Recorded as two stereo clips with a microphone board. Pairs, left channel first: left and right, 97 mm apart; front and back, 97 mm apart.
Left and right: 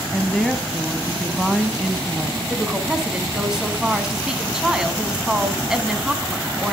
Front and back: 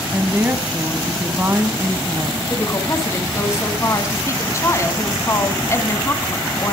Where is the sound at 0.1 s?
170° left, 1.3 m.